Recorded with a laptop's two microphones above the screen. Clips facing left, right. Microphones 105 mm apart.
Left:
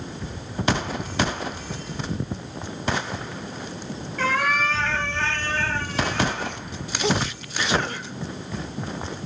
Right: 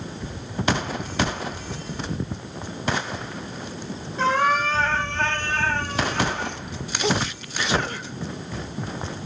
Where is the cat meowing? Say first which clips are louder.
Right 3 dB; 30° right (ahead or behind), 3 m; by 6.6 s 75° right (ahead or behind), 4.5 m.